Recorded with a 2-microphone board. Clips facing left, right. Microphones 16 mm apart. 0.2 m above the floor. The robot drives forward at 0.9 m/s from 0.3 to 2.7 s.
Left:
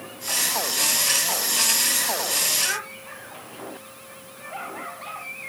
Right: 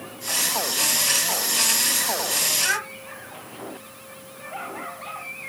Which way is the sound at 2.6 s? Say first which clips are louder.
Right 3 dB; 30° right (ahead or behind).